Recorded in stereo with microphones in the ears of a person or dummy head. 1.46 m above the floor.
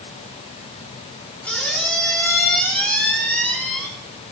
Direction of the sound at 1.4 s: 10° left (ahead or behind).